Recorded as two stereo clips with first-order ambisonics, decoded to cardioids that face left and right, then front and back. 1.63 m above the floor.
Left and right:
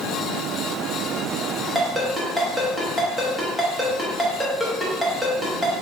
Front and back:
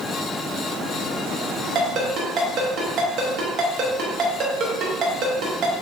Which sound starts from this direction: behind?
A ringtone, at 1.8 s.